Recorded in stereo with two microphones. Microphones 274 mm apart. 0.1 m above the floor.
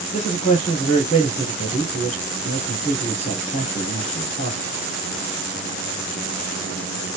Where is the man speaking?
25° left (ahead or behind), 2.5 m.